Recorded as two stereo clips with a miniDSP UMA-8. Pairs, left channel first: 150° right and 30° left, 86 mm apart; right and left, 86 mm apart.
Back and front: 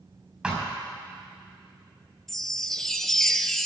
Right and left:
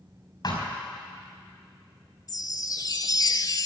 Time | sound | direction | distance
0.4 | a thud | 50° right | 5 m
2.3 | a chime | 65° right | 0.6 m